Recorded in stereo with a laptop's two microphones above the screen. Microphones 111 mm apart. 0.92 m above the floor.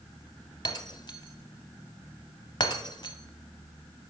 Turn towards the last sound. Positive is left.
turn(degrees=45)  # may be behind; listen again after turning